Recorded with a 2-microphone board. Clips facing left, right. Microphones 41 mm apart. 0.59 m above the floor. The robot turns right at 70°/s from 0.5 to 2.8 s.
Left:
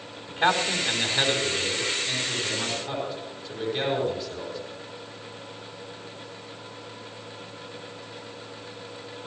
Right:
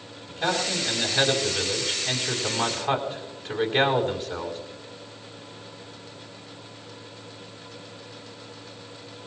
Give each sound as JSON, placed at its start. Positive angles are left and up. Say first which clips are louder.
{"t": 0.3, "sound": "a man speaking", "louder": "left 3 dB", "azimuth_deg": 155, "distance_m": 4.5}